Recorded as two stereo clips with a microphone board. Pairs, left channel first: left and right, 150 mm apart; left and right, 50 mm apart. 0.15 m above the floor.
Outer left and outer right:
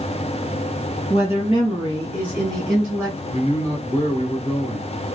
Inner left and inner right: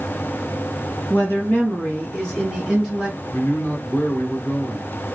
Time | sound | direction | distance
1.1 | a woman speaking | 45° left (ahead or behind) | 1.6 m
3.3 | a man speaking | 30° left (ahead or behind) | 1.2 m